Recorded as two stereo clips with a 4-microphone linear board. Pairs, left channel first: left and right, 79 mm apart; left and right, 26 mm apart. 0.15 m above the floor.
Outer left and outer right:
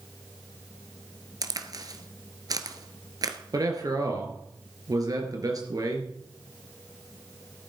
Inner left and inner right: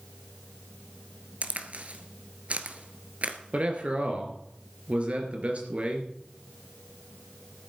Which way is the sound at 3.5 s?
50° right (ahead or behind).